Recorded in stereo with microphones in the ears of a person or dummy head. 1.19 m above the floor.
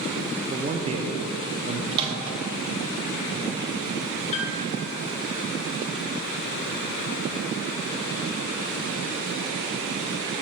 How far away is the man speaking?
About 0.6 m.